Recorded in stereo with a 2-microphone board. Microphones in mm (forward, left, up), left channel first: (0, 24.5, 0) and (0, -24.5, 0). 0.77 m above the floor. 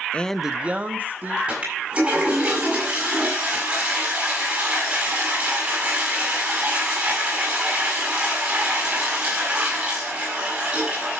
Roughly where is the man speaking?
Left.